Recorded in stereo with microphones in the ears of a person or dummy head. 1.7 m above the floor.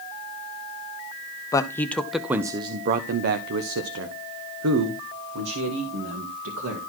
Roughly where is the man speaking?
Centre.